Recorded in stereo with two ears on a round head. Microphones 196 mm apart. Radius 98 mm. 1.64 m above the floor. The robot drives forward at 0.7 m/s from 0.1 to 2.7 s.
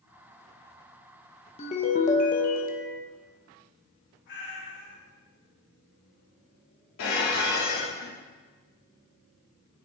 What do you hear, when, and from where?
1.6 s a ringtone: 30° left (ahead or behind), 1.1 m; by 3.0 s 40° left (ahead or behind), 0.9 m
4.3 s a cat meowing: 60° left (ahead or behind), 3.5 m
7.0 s dishes clattering: 70° left (ahead or behind), 3 m